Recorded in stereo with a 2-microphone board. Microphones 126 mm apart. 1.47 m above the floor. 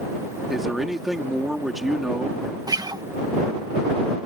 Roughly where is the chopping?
I don't hear chopping.